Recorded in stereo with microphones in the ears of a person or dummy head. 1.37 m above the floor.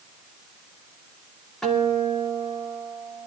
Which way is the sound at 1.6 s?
5° left (ahead or behind).